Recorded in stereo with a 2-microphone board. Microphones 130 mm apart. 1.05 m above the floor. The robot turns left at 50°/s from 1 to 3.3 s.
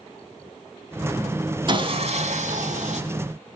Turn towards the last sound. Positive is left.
turn(degrees=-120)